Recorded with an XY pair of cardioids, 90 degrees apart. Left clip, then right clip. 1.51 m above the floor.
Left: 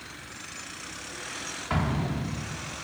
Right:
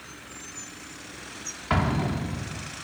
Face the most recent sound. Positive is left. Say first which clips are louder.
# right 5 dB
turn(degrees=-35)